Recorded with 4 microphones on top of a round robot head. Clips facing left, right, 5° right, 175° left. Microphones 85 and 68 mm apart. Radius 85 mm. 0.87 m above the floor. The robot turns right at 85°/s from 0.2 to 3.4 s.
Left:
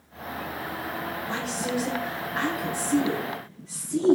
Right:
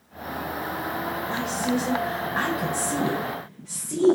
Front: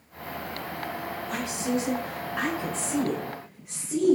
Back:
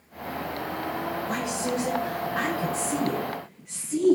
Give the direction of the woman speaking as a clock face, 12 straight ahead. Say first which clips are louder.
Right 4 dB, front 2 dB; 8 o'clock.